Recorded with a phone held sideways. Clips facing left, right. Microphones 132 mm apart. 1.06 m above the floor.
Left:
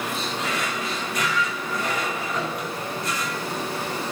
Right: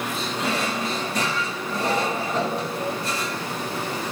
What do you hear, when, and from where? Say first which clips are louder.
0.4 s a drawer: right 3 dB; 30° right (ahead or behind), 1.1 m